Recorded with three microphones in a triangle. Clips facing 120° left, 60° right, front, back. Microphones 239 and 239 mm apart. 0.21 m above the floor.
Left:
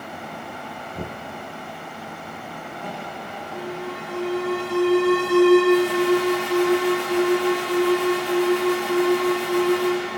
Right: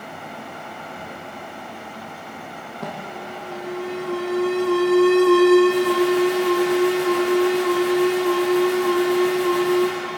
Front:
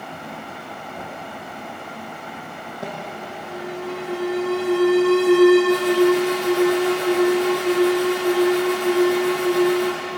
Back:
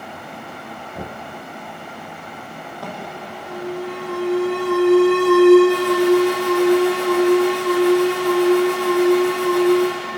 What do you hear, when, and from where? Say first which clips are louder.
0.9 s knocking: left 3 dB, back 4 dB; 120° left, 2 m
2.8 s an alarm: right 4 dB, front 1 dB; 70° right, 5 m